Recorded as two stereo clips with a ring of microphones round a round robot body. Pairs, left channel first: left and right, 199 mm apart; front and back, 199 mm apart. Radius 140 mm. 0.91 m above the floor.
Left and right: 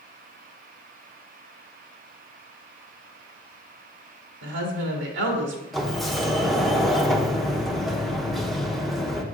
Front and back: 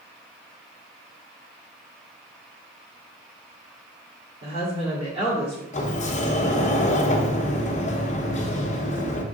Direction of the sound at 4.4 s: 105° right.